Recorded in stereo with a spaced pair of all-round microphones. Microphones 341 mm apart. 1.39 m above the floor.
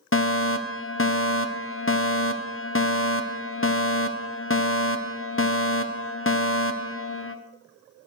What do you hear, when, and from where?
0.1 s a fire alarm: 40° left (ahead or behind), 1.1 m